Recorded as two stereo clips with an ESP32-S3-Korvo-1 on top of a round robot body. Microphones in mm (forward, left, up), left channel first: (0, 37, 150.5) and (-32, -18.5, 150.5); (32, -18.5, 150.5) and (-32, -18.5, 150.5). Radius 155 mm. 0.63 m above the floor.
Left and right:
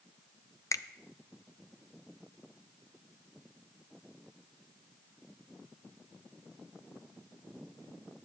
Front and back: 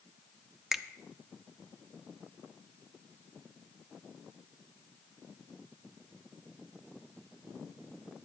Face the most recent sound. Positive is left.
turn(degrees=95)